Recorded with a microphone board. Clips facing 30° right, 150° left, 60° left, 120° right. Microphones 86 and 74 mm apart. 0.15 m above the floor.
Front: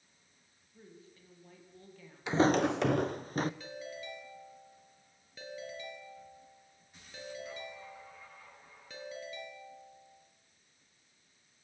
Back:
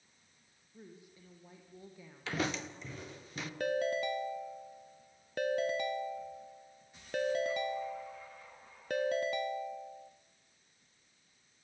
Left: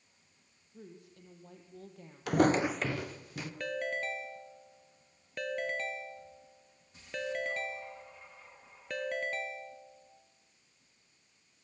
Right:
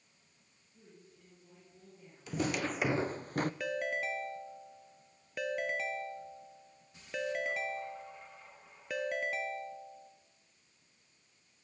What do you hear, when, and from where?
0.7 s a woman speaking: 75° left, 5.5 m
2.3 s footsteps: 40° left, 0.7 m; by 3.5 s 80° right, 1.5 m
3.6 s a ringtone: 155° left, 1.4 m